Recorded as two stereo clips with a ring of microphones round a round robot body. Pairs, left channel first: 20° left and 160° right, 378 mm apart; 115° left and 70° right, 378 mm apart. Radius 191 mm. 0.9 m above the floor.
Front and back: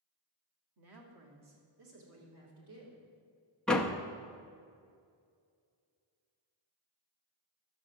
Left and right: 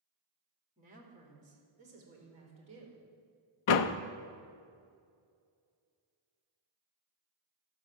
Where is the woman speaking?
135° right, 2 m; by 3.0 s 140° right, 4 m.